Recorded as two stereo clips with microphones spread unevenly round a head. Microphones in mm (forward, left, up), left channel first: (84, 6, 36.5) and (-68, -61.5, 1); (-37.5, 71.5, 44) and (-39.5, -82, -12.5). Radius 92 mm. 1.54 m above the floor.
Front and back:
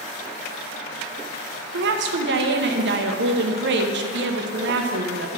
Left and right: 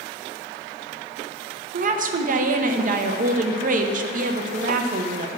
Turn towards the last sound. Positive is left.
turn(degrees=-135)